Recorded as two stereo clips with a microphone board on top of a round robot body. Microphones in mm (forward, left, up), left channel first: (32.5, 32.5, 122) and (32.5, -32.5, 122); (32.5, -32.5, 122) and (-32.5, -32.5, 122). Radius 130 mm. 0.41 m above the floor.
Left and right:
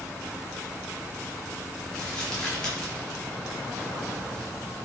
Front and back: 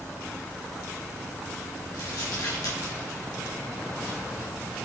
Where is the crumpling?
10° left, 4.5 m.